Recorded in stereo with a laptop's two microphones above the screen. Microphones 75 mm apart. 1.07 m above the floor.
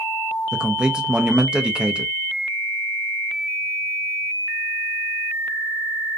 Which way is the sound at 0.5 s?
10° right (ahead or behind).